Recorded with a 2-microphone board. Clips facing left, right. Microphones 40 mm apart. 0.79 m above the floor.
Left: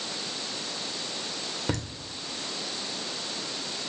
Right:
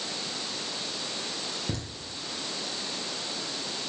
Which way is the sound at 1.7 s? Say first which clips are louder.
Left 6 dB; 80° left.